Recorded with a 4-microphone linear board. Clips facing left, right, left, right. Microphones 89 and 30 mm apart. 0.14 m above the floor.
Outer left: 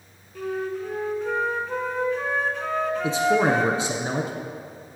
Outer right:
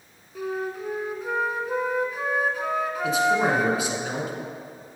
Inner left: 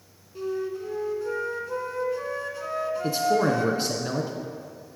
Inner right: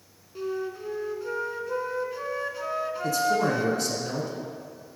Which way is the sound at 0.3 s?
10° right (ahead or behind).